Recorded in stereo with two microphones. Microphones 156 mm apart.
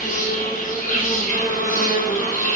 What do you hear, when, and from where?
0.0 s an insect: 60° left (ahead or behind), 0.9 m